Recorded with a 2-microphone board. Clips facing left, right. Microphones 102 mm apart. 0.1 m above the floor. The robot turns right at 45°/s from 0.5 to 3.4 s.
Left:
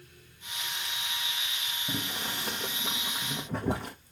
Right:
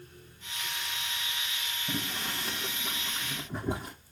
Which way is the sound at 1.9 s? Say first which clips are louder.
Even; 15° left (ahead or behind).